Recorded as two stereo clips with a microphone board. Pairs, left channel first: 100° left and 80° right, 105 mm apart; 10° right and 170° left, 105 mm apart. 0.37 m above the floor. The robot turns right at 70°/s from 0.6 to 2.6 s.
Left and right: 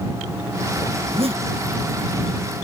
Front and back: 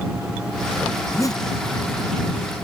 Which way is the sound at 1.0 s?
85° right.